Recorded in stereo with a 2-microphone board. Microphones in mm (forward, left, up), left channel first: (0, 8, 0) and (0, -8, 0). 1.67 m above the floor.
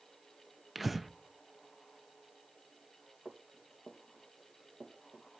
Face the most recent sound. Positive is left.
turn(degrees=-55)  # may be behind; listen again after turning